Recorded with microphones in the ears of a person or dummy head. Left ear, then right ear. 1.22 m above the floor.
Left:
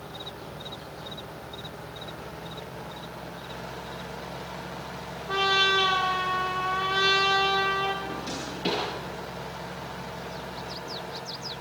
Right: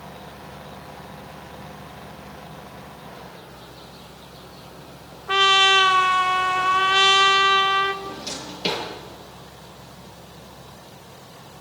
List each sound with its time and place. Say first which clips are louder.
5.3 s a trumpet: right 7 dB; 60° right (ahead or behind), 1.5 m
8.0 s a drawer: right 1 dB; 40° right (ahead or behind), 7.5 m